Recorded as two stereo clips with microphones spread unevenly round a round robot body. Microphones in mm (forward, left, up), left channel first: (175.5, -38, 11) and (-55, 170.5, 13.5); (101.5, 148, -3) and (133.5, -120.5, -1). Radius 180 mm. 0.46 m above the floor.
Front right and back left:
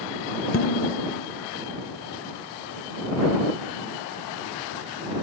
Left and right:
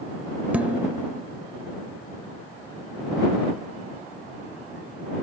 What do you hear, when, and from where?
0.5 s dishes clattering: straight ahead